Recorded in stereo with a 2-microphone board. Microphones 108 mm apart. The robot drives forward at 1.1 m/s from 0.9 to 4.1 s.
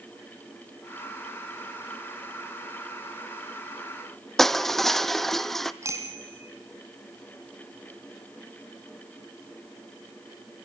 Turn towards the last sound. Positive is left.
turn(degrees=-30)  # may be behind; listen again after turning